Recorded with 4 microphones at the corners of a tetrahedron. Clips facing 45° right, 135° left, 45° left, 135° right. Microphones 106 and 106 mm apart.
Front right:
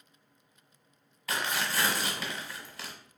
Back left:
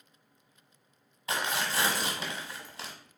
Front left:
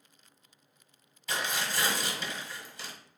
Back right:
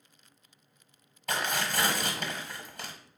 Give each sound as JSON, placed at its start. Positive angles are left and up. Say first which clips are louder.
{"t": 1.3, "sound": "tearing paper", "louder": "back left 1 dB, back right 2 dB", "azimuth_deg": -165, "distance_m": 1.2}